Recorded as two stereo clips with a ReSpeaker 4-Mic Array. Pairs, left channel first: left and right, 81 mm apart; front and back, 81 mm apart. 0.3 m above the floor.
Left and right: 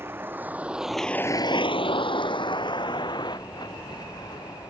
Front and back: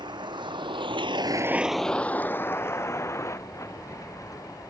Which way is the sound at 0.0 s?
155° right.